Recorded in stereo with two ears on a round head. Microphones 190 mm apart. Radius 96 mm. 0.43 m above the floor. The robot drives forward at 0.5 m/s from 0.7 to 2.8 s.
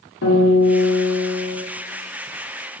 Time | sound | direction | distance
0.2 | a guitar | 65° left (ahead or behind) | 1.6 m